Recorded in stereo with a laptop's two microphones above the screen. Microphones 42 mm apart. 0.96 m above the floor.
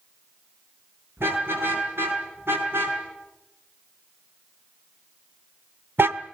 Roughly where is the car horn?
Right.